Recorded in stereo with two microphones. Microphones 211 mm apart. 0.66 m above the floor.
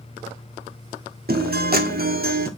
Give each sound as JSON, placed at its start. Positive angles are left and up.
{"t": 1.3, "sound": "a guitar", "side_deg": -45, "distance_m": 1.8}